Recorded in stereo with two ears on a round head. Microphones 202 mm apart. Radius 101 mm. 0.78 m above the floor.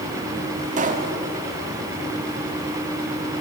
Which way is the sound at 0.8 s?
35° right (ahead or behind).